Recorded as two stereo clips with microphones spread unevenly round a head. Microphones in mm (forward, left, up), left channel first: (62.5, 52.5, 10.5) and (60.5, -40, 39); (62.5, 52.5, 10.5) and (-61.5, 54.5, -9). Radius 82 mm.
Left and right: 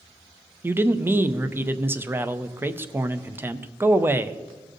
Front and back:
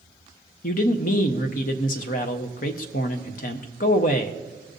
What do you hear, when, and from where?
0.6 s a man speaking: 15° right, 0.6 m